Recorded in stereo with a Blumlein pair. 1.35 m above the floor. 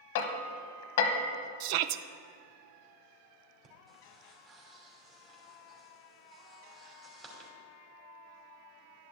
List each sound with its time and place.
0.1 s hammering: 55° left, 1.1 m
1.6 s a shout: 45° right, 0.5 m
3.6 s breathing: 25° right, 2.5 m